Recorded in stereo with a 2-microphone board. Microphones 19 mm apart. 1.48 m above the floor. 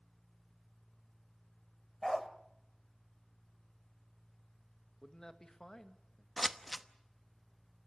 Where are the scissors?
Centre (ahead or behind), 0.9 m.